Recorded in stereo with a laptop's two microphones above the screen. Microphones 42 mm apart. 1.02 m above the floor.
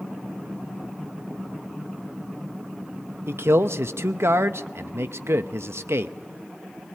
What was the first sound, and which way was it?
A man speaking, 80° right.